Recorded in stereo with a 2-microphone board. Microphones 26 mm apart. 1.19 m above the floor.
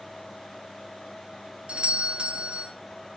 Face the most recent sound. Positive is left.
turn(degrees=-40)  # may be behind; listen again after turning